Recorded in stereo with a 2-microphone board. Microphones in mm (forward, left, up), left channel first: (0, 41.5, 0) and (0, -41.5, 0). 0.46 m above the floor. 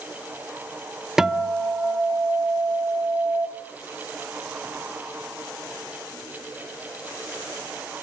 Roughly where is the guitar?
Centre.